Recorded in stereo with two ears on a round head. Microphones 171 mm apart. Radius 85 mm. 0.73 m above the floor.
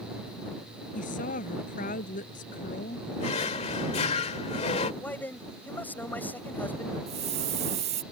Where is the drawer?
35° left (ahead or behind).